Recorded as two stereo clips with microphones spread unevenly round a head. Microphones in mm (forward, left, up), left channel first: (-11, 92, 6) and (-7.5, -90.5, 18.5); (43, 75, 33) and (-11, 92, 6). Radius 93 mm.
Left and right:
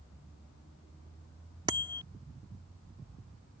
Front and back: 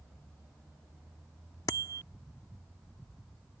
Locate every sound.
1.7 s a bicycle bell: 20° right